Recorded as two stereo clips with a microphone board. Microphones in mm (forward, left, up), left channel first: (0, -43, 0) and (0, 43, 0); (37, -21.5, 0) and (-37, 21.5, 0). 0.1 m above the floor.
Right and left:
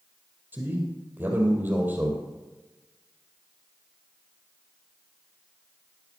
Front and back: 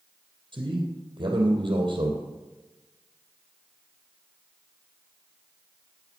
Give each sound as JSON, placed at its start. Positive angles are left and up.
{"t": 0.5, "sound": "a man speaking", "azimuth_deg": 160, "distance_m": 3.5}